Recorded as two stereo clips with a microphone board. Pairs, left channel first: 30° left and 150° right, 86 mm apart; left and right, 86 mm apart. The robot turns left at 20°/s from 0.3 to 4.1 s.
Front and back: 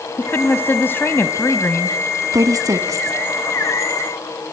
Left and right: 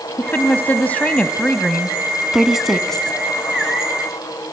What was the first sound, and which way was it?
A woman speaking, 55° left.